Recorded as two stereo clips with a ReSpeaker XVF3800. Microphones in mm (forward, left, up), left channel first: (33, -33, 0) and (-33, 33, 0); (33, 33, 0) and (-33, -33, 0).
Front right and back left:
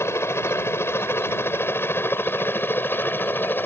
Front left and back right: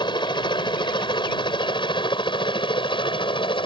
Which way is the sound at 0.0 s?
15° left.